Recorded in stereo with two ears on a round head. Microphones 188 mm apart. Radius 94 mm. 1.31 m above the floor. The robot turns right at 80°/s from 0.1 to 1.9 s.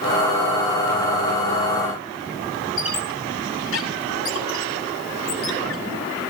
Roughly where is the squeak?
Left.